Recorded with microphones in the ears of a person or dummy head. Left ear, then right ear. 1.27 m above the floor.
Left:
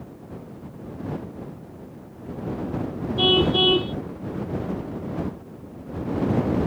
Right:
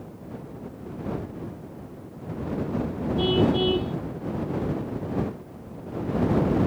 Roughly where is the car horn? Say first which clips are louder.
Left 5 dB; left.